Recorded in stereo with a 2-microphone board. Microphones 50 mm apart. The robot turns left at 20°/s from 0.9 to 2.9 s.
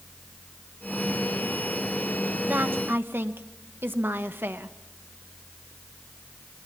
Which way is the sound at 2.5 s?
40° right (ahead or behind).